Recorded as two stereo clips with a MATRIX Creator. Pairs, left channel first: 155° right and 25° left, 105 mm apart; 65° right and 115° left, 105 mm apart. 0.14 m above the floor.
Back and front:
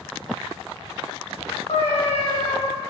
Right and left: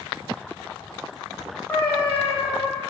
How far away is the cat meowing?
About 2 m.